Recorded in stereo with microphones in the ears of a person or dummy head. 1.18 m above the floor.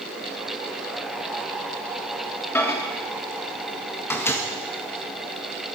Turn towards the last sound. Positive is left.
turn(degrees=20)  # may be behind; listen again after turning